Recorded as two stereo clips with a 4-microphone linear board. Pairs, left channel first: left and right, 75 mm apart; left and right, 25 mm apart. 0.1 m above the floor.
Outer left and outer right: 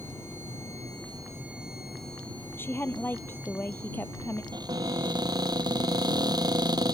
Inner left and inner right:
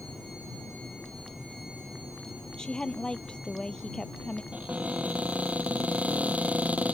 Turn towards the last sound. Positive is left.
turn(degrees=-65)  # may be behind; listen again after turning